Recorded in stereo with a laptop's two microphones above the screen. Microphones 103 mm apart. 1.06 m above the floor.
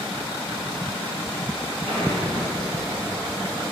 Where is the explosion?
70° right (ahead or behind), 2 m.